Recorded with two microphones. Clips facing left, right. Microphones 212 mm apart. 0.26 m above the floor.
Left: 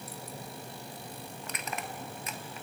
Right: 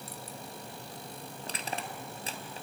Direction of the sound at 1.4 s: 30° right (ahead or behind).